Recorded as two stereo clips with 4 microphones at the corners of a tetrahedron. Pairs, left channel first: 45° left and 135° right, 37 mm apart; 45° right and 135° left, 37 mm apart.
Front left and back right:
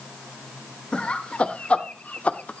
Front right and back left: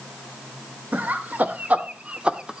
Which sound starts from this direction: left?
Laughter, at 0.9 s.